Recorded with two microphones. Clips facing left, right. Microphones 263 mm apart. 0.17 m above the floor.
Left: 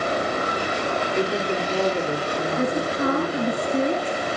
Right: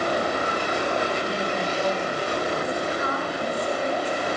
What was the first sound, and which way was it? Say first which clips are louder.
A woman speaking: left 4 dB; 70° left (ahead or behind).